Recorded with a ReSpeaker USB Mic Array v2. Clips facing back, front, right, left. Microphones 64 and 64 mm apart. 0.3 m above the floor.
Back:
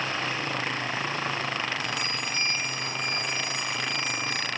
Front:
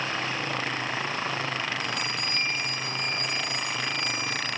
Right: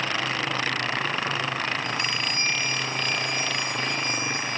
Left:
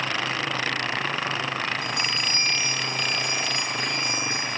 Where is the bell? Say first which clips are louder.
Even, even; 90° left, 4.5 m.